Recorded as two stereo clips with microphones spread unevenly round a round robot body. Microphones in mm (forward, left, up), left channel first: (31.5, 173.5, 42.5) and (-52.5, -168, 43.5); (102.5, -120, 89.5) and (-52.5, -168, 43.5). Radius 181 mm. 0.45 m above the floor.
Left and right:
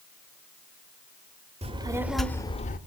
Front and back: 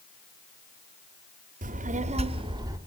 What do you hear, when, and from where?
1.6 s a child speaking: 175° right, 1.0 m; by 2.8 s 140° left, 0.8 m